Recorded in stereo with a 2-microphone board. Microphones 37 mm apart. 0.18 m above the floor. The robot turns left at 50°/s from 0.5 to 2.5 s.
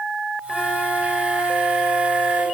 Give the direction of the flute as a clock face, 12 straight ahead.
12 o'clock.